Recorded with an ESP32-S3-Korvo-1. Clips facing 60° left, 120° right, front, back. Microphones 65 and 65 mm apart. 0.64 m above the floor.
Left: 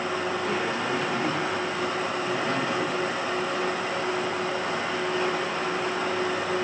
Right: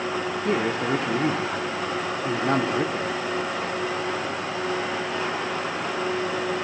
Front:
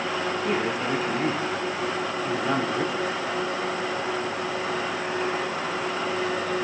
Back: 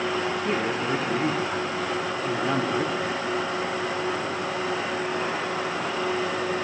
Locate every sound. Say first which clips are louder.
0.5 s a man speaking: right 3 dB, even; 90° right, 1.1 m